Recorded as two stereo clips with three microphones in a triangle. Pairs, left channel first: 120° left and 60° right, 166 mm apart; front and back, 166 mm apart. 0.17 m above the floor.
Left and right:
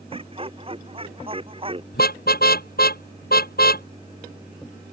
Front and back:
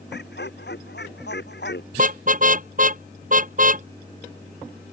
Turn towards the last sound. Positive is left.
turn(degrees=145)